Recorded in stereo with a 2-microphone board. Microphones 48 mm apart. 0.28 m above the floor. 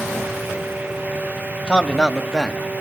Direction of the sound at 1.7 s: 20° left (ahead or behind).